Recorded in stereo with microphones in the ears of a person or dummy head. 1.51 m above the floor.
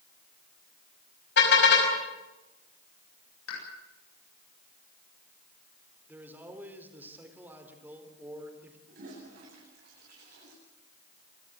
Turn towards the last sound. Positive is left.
turn(degrees=-60)  # may be behind; listen again after turning